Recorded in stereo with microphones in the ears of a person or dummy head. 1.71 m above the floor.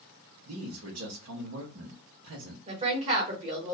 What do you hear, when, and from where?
0.5 s a man speaking: 65° right (ahead or behind), 0.8 m
2.7 s a woman speaking: 35° right (ahead or behind), 1.4 m